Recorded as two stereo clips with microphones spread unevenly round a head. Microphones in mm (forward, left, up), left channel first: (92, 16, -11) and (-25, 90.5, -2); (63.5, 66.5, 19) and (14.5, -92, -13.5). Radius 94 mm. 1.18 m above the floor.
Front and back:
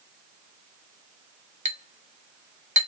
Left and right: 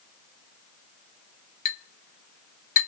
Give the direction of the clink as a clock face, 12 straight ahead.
8 o'clock.